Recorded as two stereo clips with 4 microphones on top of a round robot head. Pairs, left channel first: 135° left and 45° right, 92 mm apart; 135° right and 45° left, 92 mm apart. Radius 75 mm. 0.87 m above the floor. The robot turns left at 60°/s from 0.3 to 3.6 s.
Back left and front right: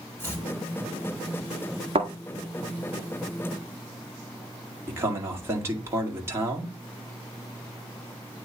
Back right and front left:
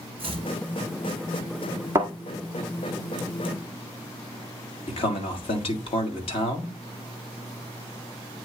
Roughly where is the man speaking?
Right.